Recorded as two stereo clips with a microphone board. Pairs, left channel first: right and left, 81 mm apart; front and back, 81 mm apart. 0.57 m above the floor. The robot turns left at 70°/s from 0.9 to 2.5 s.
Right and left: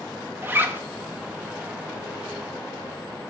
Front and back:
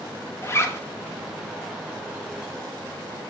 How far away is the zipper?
About 0.9 m.